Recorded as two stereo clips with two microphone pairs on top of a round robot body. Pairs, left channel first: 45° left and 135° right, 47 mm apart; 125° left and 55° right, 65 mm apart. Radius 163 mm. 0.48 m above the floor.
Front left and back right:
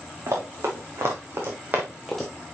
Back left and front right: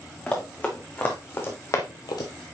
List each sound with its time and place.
0.3 s running footsteps: 165° right, 3 m; by 2.3 s 115° left, 0.8 m